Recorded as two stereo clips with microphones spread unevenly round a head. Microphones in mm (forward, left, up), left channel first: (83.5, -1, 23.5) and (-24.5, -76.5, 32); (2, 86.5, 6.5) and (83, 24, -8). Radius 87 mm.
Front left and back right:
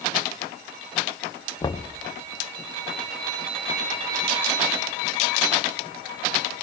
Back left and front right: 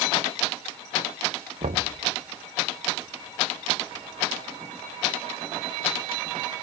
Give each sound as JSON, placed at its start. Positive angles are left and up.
{"t": 1.6, "sound": "knocking", "azimuth_deg": -25, "distance_m": 1.0}